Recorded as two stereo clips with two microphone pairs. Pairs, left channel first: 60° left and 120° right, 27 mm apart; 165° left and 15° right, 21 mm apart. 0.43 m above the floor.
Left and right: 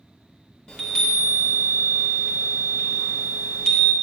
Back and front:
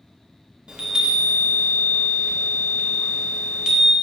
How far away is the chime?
About 0.8 m.